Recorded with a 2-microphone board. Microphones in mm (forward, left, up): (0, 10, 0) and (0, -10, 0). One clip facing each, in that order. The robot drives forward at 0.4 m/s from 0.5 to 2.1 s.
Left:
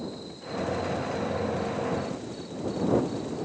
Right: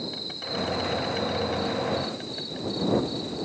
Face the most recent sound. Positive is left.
turn(degrees=-60)  # may be behind; listen again after turning